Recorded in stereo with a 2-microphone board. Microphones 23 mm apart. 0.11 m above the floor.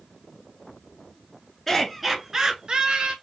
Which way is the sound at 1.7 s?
15° left (ahead or behind).